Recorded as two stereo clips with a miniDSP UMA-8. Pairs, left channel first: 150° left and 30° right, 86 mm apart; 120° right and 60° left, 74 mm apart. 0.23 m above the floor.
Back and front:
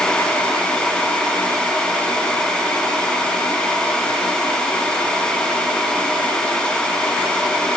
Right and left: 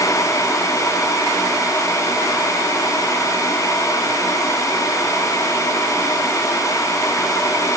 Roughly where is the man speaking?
I don't hear a man speaking.